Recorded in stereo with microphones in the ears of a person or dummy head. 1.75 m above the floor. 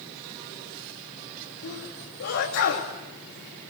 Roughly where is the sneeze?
Left.